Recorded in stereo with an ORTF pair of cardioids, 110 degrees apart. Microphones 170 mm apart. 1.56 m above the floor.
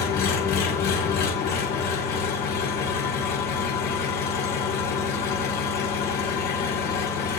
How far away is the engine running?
About 4 m.